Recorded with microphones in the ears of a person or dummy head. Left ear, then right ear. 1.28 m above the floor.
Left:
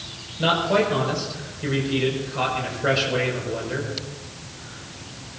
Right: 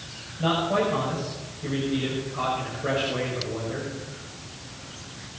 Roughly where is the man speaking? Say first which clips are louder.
Left 4 dB; left.